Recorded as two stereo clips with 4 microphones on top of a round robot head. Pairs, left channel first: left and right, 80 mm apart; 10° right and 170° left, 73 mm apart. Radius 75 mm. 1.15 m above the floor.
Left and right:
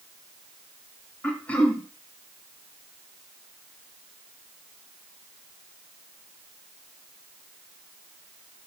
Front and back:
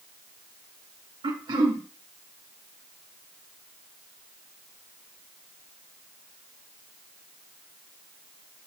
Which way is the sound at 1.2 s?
160° left.